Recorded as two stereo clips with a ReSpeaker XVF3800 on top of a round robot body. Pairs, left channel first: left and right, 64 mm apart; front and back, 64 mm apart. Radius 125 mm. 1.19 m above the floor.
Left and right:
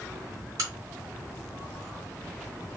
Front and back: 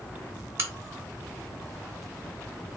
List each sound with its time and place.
0.6 s a crack: 130° right, 0.9 m